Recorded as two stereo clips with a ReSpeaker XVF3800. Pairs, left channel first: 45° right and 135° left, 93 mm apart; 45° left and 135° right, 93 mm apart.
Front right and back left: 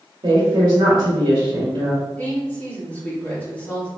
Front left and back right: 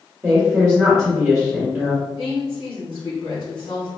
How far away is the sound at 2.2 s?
About 2.0 m.